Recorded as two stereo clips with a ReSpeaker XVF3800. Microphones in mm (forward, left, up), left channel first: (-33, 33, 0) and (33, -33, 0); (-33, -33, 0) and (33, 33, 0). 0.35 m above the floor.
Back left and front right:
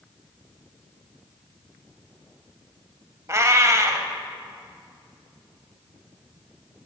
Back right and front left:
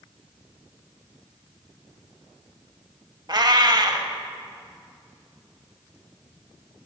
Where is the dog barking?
No dog barking in this recording.